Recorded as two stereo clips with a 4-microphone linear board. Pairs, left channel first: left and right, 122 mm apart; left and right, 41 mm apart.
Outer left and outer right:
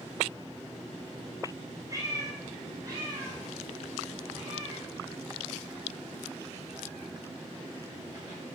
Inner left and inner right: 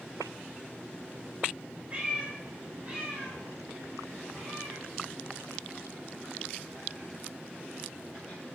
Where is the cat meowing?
25° right (ahead or behind), 1.5 m; by 8.4 s 30° right (ahead or behind), 4.5 m.